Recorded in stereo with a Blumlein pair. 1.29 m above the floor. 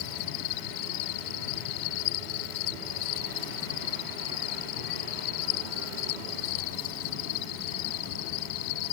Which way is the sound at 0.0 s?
45° left.